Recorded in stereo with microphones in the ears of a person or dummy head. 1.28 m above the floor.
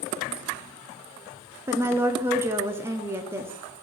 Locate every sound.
1.7 s a woman speaking: 15° right (ahead or behind), 0.6 m